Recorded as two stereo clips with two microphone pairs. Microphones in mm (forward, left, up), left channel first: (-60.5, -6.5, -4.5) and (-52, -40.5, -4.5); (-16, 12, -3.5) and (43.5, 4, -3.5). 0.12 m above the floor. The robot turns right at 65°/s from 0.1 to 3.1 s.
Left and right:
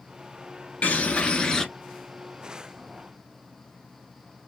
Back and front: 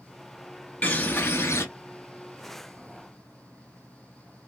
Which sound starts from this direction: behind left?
A bird, at 0.8 s.